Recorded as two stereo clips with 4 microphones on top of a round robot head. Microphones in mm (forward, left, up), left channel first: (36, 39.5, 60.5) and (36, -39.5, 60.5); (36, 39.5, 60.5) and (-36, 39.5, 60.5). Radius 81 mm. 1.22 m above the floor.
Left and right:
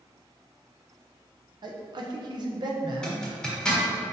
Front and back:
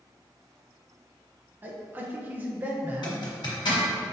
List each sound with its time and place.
1.6 s a man speaking: 115° right, 0.7 m
3.0 s a zipper: 10° left, 1.4 m